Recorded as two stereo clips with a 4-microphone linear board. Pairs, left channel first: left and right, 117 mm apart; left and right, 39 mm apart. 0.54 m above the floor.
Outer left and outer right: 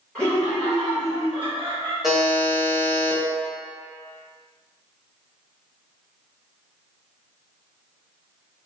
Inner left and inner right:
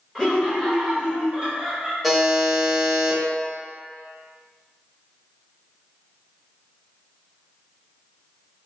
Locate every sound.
0.1 s laughter: 10° left (ahead or behind), 1.8 m; by 1.9 s 30° right (ahead or behind), 1.3 m
2.0 s a buzzer: centre (ahead or behind), 0.7 m